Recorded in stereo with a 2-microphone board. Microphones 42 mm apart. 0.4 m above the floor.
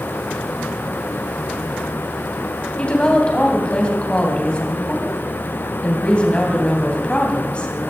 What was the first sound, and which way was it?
A woman speaking, 25° left (ahead or behind).